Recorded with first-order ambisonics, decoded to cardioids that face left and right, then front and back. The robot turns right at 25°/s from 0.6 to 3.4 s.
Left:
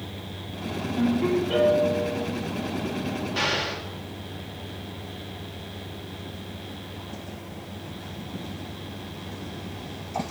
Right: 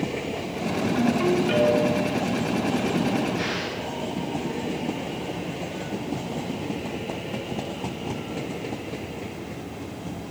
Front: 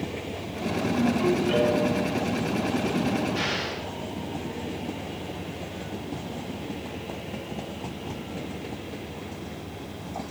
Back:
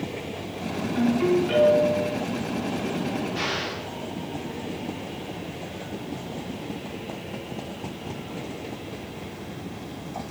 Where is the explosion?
85° left, 3 m.